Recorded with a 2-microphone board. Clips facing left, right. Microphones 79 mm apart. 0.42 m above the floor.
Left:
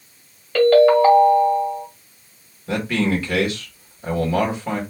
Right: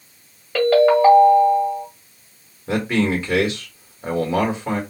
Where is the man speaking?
25° right (ahead or behind), 1.4 m.